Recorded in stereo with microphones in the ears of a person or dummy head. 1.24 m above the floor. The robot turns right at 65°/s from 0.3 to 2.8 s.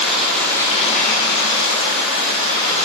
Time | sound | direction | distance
0.0 | running water | 5° left | 1.6 m